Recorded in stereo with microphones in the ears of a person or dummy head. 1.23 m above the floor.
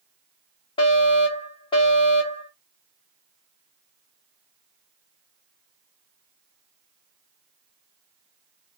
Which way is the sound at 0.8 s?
20° left (ahead or behind).